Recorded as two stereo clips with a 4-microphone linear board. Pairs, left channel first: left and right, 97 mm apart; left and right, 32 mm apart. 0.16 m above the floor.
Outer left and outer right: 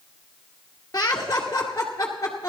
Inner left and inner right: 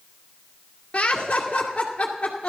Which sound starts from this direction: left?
Laughter, at 0.9 s.